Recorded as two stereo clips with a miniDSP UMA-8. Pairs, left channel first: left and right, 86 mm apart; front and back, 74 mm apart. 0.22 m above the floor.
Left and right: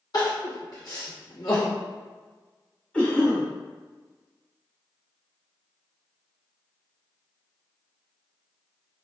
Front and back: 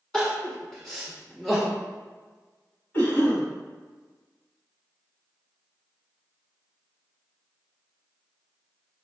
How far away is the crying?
About 1.3 m.